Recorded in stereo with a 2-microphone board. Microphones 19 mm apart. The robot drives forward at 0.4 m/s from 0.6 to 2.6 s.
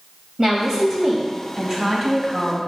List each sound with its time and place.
0.4 s a woman speaking: 35° right (ahead or behind), 3.5 m; by 2.6 s 30° right (ahead or behind), 4 m